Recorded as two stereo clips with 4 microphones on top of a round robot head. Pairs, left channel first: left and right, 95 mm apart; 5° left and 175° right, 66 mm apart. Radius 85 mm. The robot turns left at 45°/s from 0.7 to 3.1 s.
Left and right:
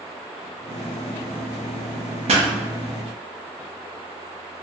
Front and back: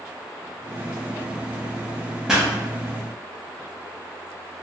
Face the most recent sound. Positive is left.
turn(degrees=-125)